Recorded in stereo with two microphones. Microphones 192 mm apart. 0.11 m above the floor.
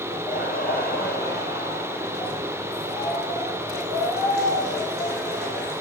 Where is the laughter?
45° left (ahead or behind), 3 m; by 5.7 s 60° left (ahead or behind), 6.5 m.